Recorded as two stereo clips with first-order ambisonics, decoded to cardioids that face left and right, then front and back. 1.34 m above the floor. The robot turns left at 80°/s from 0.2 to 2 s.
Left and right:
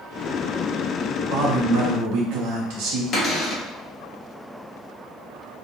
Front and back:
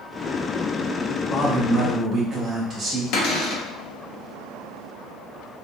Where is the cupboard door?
30° left, 0.7 m.